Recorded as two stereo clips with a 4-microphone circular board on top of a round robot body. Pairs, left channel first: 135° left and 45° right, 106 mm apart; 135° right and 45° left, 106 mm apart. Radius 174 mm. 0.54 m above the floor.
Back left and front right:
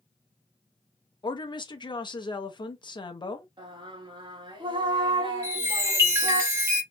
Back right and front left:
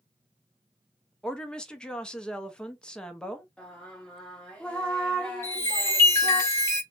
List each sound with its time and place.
1.2 s a woman speaking: 145° left, 0.8 m
3.6 s singing: 55° right, 1.3 m
5.4 s a chime: 90° right, 1.6 m